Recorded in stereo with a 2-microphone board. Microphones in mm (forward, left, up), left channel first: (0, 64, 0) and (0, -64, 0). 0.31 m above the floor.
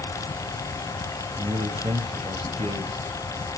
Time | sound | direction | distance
1.4 | a man speaking | 45° right (ahead or behind) | 1.3 m